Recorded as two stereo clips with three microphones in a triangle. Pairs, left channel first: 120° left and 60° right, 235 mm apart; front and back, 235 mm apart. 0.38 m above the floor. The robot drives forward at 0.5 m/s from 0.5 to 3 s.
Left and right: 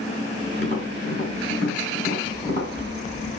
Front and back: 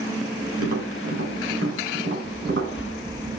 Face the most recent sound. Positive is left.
turn(degrees=100)